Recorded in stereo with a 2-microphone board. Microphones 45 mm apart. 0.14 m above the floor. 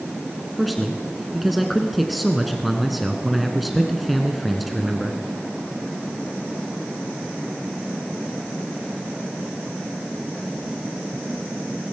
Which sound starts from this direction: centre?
A man speaking, at 0.6 s.